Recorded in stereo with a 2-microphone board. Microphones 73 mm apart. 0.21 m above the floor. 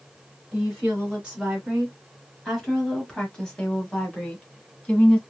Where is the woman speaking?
15° right (ahead or behind), 1.6 m; by 5.2 s 20° left (ahead or behind), 1.7 m.